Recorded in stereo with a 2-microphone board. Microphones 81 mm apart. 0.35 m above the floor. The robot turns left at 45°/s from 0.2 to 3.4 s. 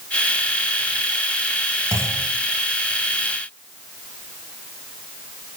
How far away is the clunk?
About 2.5 m.